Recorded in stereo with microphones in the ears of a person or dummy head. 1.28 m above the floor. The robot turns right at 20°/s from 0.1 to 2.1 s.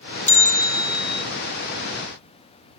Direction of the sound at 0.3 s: 10° left (ahead or behind).